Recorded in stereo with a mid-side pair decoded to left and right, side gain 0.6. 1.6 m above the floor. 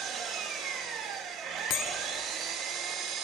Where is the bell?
65° left, 1.4 m.